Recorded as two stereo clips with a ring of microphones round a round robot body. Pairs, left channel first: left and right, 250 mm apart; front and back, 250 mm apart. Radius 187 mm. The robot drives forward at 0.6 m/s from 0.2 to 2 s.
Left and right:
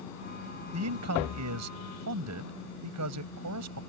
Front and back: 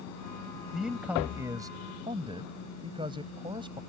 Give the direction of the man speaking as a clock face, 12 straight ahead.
3 o'clock.